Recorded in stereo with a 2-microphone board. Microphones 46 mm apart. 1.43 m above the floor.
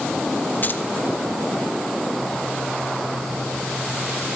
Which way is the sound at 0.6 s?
40° left (ahead or behind).